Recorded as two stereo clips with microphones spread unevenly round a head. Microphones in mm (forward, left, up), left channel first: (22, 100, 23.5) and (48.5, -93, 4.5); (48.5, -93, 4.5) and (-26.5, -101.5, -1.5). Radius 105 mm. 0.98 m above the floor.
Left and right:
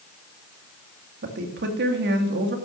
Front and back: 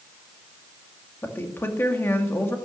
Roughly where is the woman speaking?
Ahead right.